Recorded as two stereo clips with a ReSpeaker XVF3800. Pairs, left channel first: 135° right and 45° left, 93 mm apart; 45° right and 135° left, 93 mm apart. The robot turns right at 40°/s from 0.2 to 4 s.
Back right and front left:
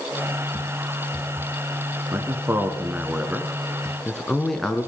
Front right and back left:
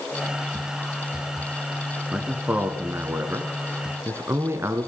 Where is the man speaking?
70° left, 1.2 m; by 4.9 s 145° left, 1.2 m.